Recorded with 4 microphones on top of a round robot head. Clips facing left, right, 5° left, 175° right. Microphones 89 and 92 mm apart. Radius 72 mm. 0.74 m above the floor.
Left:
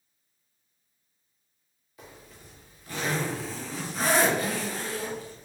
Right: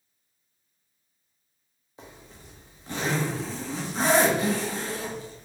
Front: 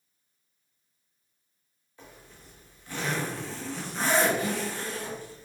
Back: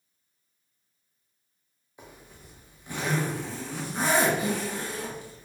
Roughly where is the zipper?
Behind right.